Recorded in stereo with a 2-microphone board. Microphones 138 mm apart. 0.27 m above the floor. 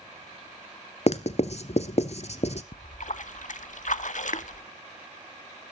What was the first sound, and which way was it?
Writing, 55° left (ahead or behind).